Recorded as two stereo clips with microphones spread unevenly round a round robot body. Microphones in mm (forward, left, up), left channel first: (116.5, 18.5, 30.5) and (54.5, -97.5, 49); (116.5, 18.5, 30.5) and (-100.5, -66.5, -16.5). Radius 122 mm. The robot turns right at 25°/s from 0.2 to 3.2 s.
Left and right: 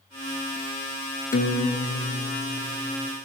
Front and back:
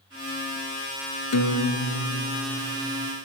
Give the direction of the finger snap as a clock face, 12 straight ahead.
No finger snap in this recording.